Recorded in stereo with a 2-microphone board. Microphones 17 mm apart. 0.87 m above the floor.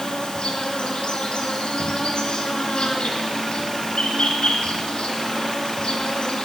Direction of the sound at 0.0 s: 75° left (ahead or behind).